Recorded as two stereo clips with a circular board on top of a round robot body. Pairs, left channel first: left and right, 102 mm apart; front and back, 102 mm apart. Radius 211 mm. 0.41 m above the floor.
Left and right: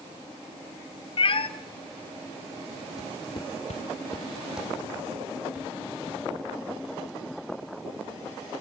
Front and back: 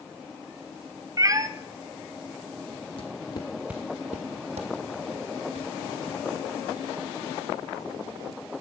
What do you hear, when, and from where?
1.2 s a cat meowing: 125° left, 0.7 m
3.0 s footsteps: 35° left, 1.1 m; by 6.2 s 165° right, 3 m